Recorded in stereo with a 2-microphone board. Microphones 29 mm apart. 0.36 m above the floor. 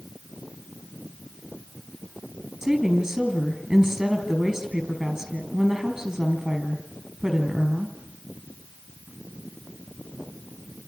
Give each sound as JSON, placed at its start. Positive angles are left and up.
{"t": 2.6, "sound": "a woman speaking", "side_deg": -25, "distance_m": 5.0}